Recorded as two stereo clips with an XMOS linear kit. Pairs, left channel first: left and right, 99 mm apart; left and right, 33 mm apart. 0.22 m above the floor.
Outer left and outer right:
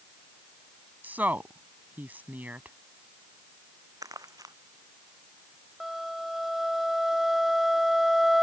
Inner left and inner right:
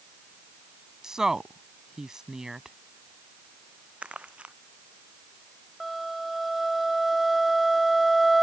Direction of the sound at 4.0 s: 40° right (ahead or behind).